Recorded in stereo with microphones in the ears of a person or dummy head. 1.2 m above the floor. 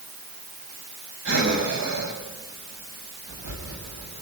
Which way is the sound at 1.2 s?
75° right (ahead or behind).